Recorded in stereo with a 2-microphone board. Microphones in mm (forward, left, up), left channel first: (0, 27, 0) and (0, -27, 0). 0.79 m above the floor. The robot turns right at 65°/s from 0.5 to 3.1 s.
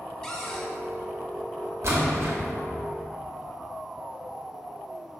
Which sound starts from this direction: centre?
A cupboard door, at 0.2 s.